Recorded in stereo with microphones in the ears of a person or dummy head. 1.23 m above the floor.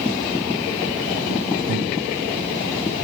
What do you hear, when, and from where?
1.7 s breathing: 40° right (ahead or behind), 0.5 m